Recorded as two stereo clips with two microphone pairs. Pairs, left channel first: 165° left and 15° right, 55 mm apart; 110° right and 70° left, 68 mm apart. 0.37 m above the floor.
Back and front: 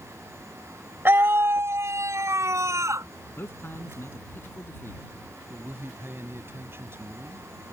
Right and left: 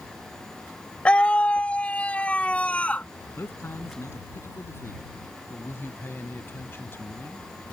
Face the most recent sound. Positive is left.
turn(degrees=-55)